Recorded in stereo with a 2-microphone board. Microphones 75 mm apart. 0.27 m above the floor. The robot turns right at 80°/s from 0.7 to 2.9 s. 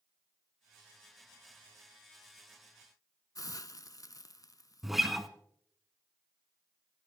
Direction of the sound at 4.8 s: 5° right (ahead or behind).